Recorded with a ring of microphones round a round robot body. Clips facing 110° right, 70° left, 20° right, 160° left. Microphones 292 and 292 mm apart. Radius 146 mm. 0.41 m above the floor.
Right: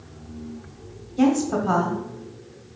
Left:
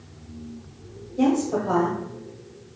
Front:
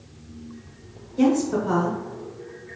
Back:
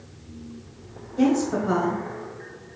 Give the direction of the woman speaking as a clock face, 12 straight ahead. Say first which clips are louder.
Right 1 dB, front 1 dB; 4 o'clock.